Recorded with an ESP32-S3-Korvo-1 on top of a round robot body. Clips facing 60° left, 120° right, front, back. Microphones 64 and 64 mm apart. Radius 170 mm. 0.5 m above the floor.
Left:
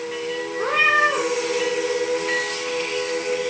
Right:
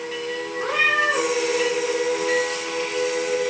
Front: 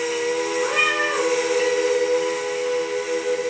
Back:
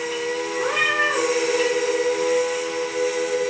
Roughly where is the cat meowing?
Behind left.